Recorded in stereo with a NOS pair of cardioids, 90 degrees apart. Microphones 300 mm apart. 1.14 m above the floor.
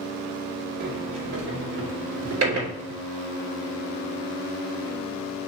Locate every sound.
0.8 s a sliding door: 55° right, 3.5 m